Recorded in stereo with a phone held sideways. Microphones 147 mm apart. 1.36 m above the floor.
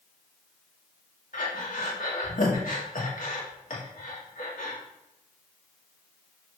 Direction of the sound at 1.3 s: 65° left (ahead or behind).